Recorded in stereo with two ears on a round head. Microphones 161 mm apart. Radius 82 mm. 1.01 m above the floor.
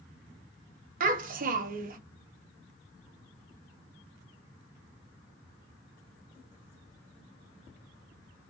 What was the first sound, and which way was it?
A child speaking, 50° right (ahead or behind).